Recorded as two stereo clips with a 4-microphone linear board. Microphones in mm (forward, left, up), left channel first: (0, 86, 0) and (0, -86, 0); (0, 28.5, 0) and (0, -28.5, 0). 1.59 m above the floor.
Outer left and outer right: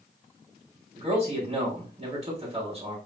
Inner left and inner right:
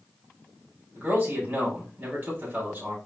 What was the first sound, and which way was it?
A man speaking, 40° right (ahead or behind).